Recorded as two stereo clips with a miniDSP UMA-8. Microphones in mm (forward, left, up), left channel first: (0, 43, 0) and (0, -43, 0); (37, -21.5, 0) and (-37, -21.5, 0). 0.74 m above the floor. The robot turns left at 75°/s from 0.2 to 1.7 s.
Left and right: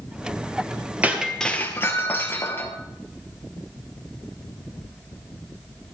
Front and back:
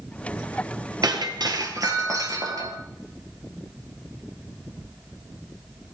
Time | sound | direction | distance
1.0 | breaking glass | 160° right | 1.4 m